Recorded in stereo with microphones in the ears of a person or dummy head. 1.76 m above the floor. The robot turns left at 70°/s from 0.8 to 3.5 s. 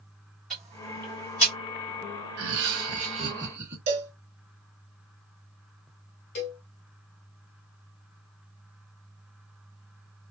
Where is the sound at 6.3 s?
40° left (ahead or behind), 1.2 m.